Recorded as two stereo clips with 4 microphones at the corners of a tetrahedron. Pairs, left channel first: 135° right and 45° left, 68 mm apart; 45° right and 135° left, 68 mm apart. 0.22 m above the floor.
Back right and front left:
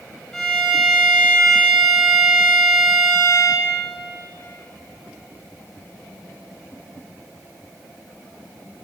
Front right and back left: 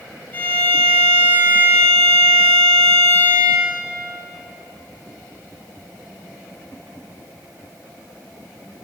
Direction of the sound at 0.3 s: 65° right.